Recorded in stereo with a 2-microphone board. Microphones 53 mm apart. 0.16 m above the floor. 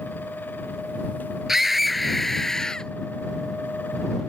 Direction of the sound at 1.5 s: 5° right (ahead or behind).